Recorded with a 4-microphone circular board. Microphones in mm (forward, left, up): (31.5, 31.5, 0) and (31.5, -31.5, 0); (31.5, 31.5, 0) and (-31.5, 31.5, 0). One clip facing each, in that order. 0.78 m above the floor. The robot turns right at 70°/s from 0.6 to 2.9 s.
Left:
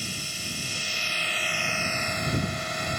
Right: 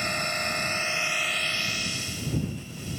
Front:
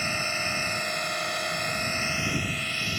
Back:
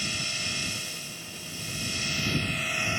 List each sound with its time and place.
0.0 s a drone: 50° right; by 3.0 s 110° left